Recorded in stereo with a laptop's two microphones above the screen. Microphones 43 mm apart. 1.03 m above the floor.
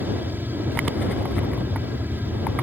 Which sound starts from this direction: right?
An aircraft, at 0.0 s.